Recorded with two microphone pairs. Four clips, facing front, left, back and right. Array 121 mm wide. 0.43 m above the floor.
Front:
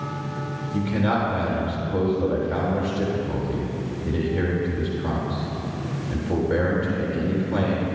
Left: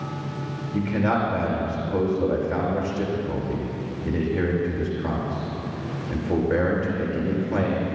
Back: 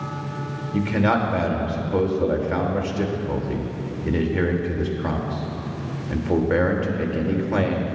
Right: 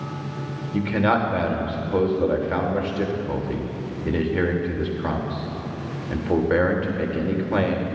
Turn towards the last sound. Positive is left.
turn(degrees=-110)